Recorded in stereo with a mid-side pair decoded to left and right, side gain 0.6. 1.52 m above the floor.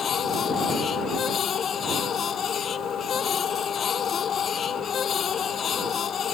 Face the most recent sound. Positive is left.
turn(degrees=40)